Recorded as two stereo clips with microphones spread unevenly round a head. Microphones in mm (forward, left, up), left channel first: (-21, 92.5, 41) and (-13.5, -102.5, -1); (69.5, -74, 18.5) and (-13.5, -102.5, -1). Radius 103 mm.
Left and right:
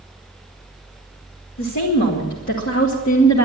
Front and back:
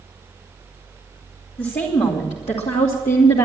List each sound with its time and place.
1.6 s a woman speaking: 70° left, 3 m; by 3.4 s 45° left, 1.8 m